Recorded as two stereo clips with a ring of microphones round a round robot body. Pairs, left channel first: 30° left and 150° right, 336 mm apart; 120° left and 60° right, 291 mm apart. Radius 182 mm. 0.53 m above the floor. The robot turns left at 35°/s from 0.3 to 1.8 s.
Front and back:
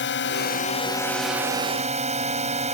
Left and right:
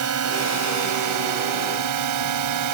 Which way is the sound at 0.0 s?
25° right.